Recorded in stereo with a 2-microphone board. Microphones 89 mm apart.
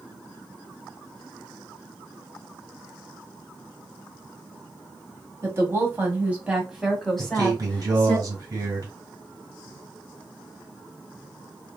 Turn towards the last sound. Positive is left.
turn(degrees=-45)  # may be behind; listen again after turning